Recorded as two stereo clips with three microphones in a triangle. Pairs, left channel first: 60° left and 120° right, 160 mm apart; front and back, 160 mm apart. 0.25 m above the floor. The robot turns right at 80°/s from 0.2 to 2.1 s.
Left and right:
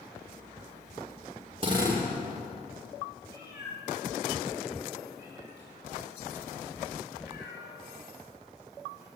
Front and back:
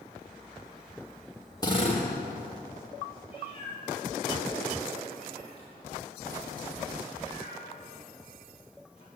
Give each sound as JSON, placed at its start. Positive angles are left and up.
{"t": 1.6, "sound": "a drill", "azimuth_deg": -65, "distance_m": 6.5}
{"t": 3.3, "sound": "a cat meowing", "azimuth_deg": 55, "distance_m": 9.5}